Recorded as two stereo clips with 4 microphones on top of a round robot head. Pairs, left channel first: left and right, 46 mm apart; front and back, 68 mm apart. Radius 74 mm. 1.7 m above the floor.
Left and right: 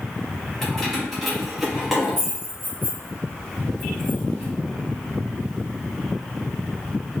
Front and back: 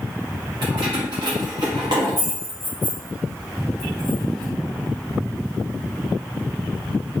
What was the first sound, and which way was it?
Keys jangling, 170° left.